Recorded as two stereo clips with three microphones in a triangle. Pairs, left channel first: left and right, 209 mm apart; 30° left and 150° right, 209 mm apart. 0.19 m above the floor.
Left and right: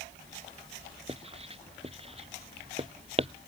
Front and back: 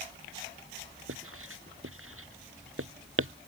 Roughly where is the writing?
Behind right.